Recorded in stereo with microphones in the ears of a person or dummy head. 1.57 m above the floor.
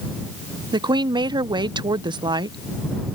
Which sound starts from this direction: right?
A woman speaking, at 0.7 s.